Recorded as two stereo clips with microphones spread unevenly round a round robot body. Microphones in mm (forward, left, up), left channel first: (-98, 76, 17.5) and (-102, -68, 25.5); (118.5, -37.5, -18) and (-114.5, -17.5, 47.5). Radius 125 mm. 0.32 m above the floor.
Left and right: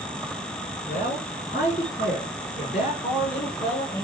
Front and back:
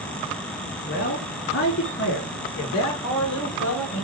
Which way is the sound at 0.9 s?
40° left.